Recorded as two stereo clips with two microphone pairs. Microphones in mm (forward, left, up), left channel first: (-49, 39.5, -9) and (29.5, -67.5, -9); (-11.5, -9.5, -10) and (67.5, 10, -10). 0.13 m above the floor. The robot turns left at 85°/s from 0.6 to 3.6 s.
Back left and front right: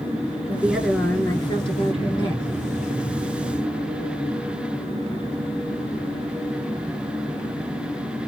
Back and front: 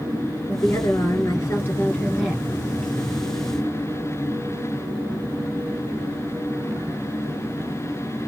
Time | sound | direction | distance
0.5 | a woman speaking | 125° right | 1.4 m